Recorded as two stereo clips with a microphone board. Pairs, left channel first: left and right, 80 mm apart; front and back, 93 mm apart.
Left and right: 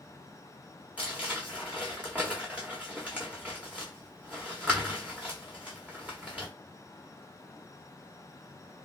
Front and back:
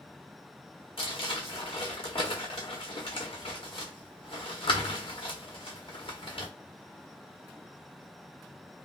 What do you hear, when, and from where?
1.0 s crumpling: 15° right, 1.5 m